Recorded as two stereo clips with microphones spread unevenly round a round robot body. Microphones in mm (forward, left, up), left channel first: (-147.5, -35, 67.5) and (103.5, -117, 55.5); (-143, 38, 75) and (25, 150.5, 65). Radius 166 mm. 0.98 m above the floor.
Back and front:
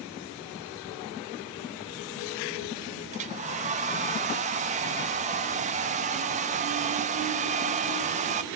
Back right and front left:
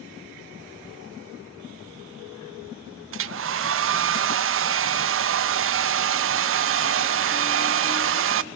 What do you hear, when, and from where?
3.1 s a hair dryer: 50° left, 0.7 m